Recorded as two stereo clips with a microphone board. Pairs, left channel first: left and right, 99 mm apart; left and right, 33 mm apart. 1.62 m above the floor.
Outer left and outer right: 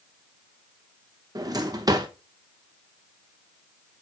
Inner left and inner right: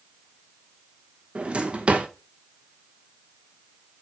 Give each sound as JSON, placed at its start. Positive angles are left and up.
{"t": 1.4, "sound": "a drawer", "side_deg": -35, "distance_m": 0.9}